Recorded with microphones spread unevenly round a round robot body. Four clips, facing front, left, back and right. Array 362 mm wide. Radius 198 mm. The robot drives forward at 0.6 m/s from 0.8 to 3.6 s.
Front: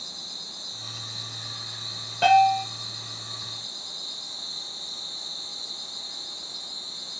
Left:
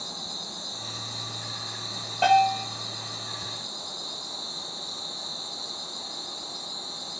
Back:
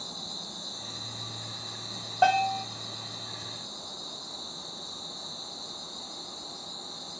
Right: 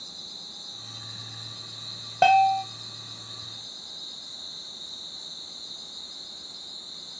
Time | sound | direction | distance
0.0 | an insect | 175° left | 1.4 m
2.2 | a bell | 90° right | 0.6 m